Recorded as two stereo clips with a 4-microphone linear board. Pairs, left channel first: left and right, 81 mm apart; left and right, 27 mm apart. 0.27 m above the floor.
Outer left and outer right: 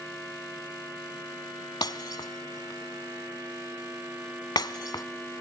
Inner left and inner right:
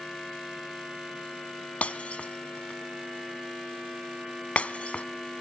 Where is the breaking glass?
60° left (ahead or behind), 0.8 m.